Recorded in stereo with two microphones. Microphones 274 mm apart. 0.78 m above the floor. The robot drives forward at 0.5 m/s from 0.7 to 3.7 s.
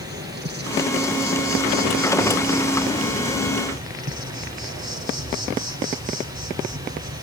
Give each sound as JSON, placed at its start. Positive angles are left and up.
{"t": 0.0, "sound": "an insect", "side_deg": -40, "distance_m": 4.0}